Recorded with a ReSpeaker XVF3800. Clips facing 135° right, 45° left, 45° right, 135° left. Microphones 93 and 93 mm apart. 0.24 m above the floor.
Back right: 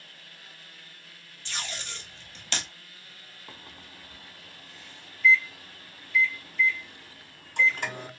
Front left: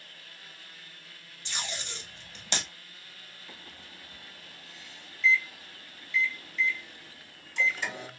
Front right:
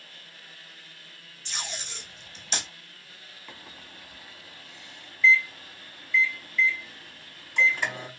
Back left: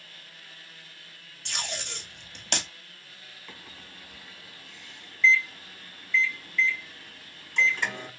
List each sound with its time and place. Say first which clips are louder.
1.4 s tape being pulled: even, back left 2 dB; 115° left, 1.0 m
3.5 s a microwave: back right 3 dB, front right 2 dB; 120° right, 1.2 m